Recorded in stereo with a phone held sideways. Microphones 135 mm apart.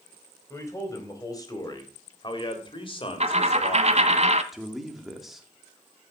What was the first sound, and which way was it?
A man speaking, 20° left (ahead or behind).